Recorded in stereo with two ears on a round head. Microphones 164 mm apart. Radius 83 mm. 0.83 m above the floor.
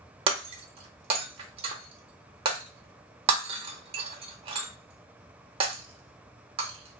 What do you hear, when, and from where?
0.3 s breaking glass: 30° right (ahead or behind), 0.5 m